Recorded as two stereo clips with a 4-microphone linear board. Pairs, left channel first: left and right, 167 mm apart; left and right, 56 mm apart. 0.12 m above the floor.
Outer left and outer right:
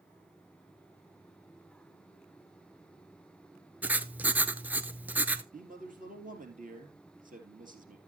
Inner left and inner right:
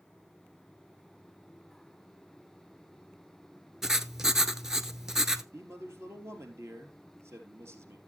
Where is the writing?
10° right (ahead or behind), 0.7 m.